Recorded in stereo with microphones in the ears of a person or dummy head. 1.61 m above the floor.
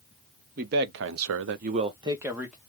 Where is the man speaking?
50° right (ahead or behind), 0.9 m; by 2.6 s 5° right (ahead or behind), 1.1 m.